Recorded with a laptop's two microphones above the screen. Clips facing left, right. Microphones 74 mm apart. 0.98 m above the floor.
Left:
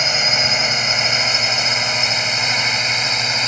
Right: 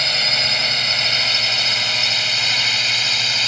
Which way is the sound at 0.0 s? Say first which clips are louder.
Left 3 dB; 15° left (ahead or behind).